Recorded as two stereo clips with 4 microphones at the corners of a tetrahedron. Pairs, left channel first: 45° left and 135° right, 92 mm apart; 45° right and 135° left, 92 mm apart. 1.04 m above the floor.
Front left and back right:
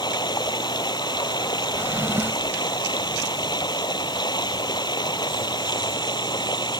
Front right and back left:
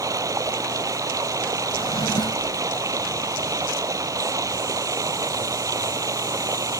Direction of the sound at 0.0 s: 85° left.